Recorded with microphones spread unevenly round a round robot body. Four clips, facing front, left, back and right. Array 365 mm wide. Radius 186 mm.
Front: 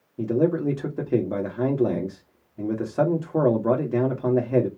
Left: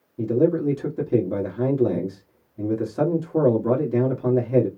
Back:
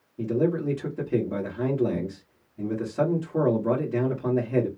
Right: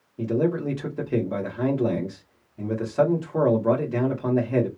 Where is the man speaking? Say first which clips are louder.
Left 4 dB, front 3 dB; 30° left, 1.4 m.